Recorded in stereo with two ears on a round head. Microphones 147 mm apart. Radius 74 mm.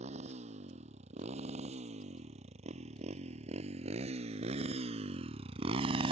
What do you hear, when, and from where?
0.0 s a motorcycle: 40° right (ahead or behind); by 6.1 s 35° right (ahead or behind)